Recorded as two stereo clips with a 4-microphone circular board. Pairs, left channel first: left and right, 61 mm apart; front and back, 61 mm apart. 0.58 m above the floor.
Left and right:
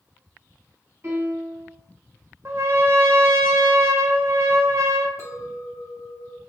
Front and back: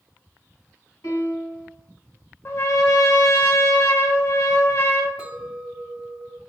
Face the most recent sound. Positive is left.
turn(degrees=115)